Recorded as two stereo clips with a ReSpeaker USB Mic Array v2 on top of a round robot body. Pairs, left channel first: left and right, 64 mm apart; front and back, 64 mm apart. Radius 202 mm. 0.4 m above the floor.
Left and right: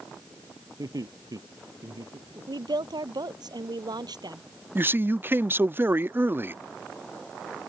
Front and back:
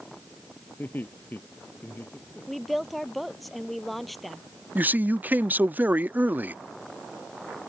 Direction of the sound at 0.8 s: 65° right.